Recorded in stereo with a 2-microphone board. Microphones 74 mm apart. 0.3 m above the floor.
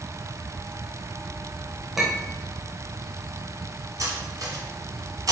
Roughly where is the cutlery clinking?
Right.